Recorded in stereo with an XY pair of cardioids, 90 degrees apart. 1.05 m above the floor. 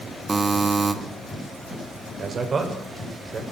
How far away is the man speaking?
About 3.5 m.